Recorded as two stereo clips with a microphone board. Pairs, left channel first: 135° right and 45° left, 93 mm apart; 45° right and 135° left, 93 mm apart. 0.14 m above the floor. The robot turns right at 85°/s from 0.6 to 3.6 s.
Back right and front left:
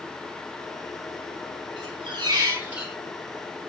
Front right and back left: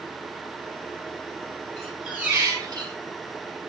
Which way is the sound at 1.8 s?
30° left.